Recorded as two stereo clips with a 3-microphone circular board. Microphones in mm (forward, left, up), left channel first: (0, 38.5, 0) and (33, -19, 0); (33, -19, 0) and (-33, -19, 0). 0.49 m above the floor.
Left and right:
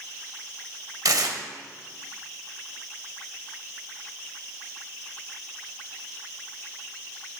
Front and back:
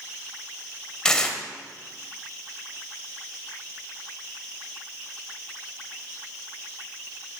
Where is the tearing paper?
80° right, 0.8 m.